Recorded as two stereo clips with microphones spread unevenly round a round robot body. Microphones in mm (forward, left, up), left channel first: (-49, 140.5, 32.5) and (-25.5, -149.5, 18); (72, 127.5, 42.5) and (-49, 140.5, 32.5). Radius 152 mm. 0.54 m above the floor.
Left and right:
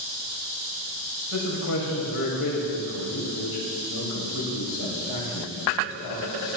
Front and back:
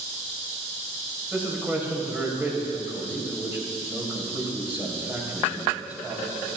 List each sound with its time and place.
1.3 s a man speaking: 100° left, 3 m